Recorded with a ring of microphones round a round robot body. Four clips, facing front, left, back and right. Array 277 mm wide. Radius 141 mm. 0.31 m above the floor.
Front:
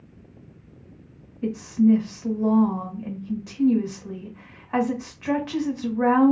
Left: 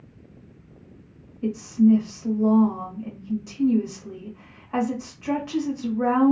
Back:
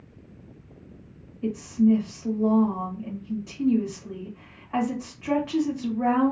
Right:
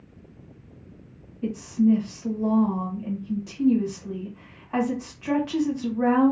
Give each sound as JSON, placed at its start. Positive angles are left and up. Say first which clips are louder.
{"t": 1.4, "sound": "a woman speaking", "louder": "left 3 dB, front 2 dB", "azimuth_deg": -10, "distance_m": 1.4}